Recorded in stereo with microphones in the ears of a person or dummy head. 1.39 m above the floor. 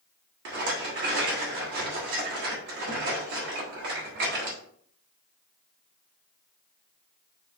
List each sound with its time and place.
0.5 s a rattle: 45° right (ahead or behind), 1.0 m